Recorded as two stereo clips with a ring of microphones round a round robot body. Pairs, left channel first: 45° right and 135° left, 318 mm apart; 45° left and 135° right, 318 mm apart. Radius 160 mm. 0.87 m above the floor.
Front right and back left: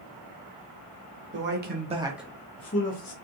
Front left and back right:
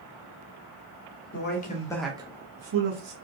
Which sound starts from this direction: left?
A man speaking, at 1.3 s.